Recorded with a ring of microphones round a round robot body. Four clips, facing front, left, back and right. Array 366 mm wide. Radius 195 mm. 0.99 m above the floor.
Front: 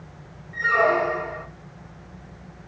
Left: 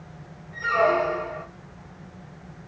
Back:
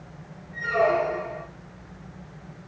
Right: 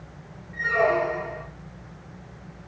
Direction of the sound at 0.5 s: 35° left.